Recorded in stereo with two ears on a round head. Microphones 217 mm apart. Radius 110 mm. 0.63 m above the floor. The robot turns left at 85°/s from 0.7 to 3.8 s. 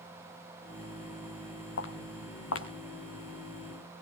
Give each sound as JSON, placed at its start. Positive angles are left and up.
{"t": 1.8, "sound": "footsteps", "side_deg": 50, "distance_m": 2.5}